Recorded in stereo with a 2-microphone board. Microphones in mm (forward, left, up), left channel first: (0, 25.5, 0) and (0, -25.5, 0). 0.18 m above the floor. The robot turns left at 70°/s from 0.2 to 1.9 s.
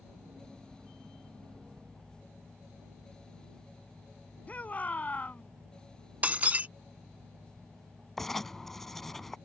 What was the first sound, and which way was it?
A shout, 30° left (ahead or behind).